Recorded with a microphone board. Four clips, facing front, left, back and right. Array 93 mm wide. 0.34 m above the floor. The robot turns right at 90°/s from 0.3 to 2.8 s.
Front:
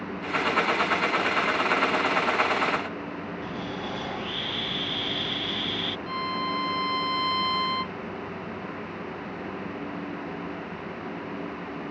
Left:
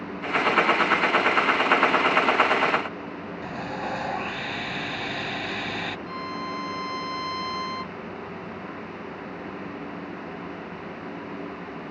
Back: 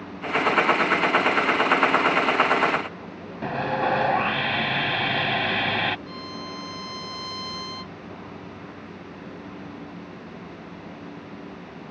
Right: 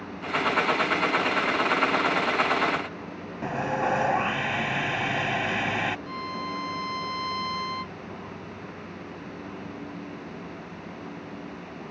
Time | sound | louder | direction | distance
3.4 | sawing | right 6 dB, back 14 dB | 155° right | ?
6.1 | a violin | left 1 dB, front 7 dB | straight ahead | ?